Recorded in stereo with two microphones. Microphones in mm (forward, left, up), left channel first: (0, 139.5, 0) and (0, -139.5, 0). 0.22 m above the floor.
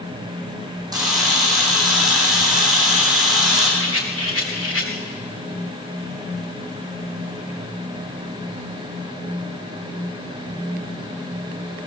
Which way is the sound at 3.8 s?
50° left (ahead or behind).